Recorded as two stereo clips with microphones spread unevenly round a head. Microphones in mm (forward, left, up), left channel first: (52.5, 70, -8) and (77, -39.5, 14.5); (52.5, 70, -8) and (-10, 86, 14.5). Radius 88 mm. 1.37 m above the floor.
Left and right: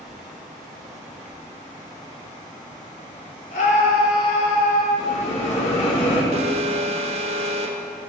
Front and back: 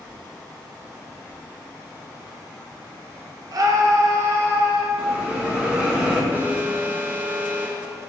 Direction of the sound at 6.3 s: 110° right.